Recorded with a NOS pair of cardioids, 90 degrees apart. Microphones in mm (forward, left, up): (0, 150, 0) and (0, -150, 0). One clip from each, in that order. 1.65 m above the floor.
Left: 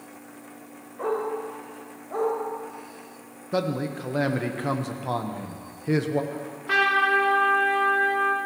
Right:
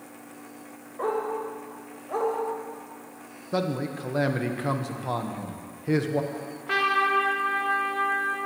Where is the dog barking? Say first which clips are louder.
Even; 25° right, 3.5 m.